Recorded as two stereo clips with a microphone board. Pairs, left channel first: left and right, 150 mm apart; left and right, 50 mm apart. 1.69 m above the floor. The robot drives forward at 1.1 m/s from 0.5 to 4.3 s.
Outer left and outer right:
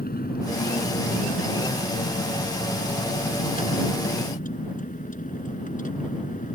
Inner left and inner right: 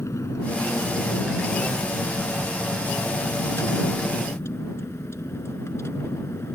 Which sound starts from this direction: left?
A vehicle, at 0.0 s.